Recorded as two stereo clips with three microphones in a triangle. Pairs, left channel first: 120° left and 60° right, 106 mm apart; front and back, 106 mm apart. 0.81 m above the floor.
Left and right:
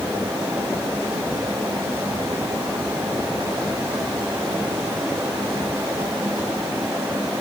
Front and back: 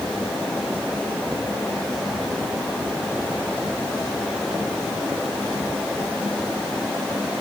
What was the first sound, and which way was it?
Only background noise.